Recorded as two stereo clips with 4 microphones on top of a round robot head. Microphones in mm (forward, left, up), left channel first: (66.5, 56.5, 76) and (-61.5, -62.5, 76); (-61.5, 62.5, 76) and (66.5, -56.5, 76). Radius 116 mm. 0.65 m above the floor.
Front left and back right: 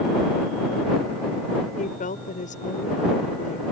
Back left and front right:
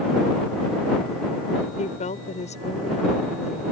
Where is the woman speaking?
85° left.